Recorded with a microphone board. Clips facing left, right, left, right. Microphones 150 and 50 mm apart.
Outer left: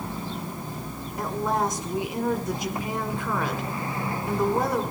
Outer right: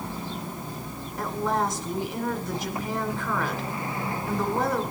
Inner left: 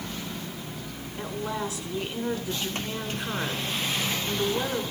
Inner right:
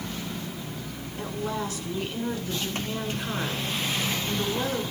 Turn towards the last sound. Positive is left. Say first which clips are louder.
# outer left 1 dB, even
turn(degrees=15)  # may be behind; listen again after turning